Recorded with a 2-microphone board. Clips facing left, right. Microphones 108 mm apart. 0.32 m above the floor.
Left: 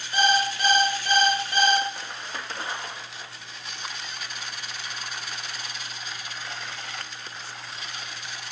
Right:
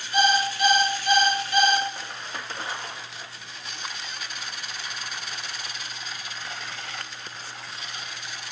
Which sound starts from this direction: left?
An alarm clock, at 0.1 s.